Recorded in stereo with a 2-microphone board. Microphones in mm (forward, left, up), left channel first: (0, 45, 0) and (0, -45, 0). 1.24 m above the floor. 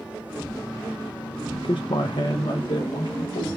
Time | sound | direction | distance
1.5 | a man speaking | 70° left (ahead or behind) | 0.5 m